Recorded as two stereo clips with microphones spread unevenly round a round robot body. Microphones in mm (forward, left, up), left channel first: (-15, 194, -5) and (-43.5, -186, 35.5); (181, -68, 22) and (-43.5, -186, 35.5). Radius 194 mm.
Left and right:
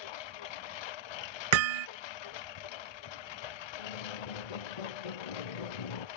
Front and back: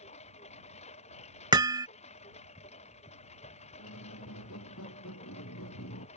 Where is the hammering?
75° right.